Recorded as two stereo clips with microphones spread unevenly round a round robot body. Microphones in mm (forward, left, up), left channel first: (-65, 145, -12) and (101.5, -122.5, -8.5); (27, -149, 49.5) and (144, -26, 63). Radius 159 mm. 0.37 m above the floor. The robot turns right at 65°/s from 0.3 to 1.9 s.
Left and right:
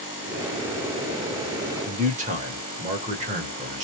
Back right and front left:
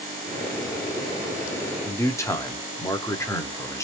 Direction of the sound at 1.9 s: 100° right.